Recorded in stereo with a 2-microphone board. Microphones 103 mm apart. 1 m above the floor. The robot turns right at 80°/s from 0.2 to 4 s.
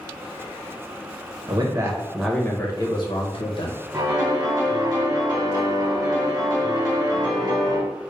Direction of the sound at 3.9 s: 40° right (ahead or behind).